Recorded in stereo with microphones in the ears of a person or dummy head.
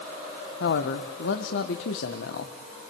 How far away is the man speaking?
About 1.5 m.